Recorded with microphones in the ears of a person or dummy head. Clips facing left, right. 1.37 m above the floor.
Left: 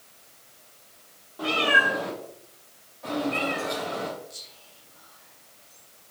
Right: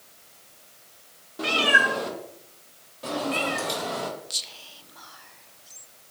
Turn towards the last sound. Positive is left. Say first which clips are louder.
# right 2 dB
turn(degrees=-85)